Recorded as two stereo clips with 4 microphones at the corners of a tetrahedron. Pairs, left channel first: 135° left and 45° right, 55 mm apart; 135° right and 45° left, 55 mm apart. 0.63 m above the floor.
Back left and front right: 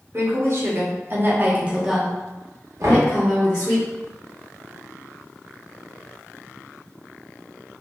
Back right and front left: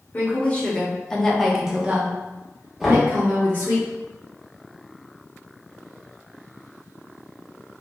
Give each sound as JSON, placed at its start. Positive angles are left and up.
{"t": 0.1, "sound": "a woman speaking", "azimuth_deg": -75, "distance_m": 1.3}
{"t": 2.8, "sound": "knocking", "azimuth_deg": -40, "distance_m": 1.1}